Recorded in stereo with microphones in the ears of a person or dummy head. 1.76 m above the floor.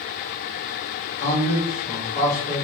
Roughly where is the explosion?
I don't hear an explosion.